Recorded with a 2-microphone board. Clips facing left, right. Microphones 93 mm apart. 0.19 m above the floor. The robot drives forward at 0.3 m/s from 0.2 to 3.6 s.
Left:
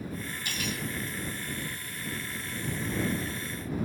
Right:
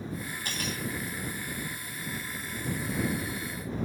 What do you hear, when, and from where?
0.5 s cutlery clinking: 45° right (ahead or behind), 3.5 m; by 0.8 s 40° right (ahead or behind), 3.5 m